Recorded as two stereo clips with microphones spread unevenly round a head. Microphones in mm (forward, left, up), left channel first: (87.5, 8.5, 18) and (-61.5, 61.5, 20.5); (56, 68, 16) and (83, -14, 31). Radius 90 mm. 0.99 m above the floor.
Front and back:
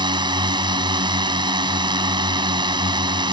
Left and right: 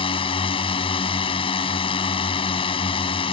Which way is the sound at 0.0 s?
100° left.